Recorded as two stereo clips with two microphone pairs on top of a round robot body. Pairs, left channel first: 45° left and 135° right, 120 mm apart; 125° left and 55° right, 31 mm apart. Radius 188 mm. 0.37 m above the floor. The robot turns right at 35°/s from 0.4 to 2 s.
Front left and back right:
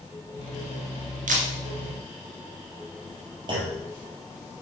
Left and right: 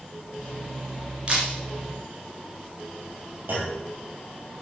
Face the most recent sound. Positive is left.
turn(degrees=-80)